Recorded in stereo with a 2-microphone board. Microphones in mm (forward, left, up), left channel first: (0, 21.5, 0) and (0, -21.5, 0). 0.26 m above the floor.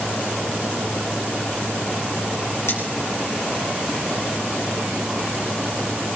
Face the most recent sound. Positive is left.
turn(degrees=70)  # may be behind; listen again after turning